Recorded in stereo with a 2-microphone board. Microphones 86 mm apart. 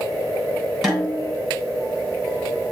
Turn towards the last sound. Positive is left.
turn(degrees=0)  # may be behind; listen again after turning